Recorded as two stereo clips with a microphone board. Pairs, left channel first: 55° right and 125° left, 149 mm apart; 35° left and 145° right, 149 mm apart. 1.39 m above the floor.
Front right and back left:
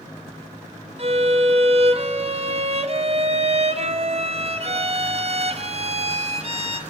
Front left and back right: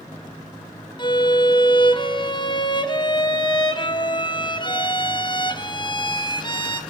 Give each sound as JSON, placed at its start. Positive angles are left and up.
{"t": 1.0, "sound": "a violin", "azimuth_deg": 85, "distance_m": 1.0}